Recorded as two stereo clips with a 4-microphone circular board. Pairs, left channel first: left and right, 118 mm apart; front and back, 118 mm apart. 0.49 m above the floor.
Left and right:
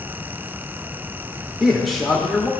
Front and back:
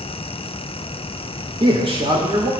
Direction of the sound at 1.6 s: Straight behind.